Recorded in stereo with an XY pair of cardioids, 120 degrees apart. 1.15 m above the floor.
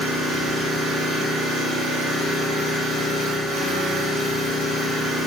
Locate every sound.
0.0 s an engine running: 70° right, 1.8 m